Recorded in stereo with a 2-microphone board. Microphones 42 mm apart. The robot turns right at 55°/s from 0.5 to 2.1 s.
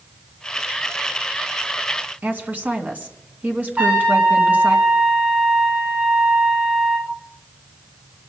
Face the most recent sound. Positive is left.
turn(degrees=-35)  # may be behind; listen again after turning